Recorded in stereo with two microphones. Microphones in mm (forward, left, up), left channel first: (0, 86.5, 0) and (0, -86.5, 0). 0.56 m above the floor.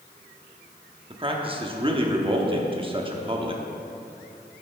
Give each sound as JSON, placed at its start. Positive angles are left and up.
{"t": 1.1, "sound": "a man speaking", "side_deg": -30, "distance_m": 0.9}